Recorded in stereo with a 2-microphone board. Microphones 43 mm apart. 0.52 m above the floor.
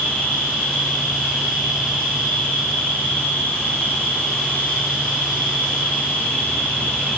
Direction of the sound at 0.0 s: 35° left (ahead or behind).